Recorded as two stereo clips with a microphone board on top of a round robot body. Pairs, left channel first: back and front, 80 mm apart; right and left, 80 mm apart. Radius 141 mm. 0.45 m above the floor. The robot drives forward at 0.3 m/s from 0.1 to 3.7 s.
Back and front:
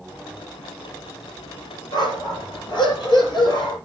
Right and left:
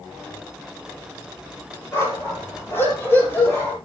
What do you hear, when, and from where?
1.9 s a dog barking: 150° right, 6.5 m